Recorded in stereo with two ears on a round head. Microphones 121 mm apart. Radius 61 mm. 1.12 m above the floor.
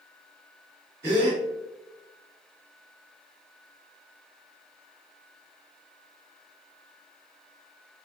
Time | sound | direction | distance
1.0 | a gasp | 25° right (ahead or behind) | 1.2 m